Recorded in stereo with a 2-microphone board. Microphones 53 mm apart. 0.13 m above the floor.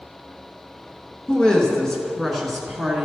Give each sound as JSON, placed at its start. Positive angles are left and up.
{"t": 1.3, "sound": "a woman speaking", "side_deg": 20, "distance_m": 1.7}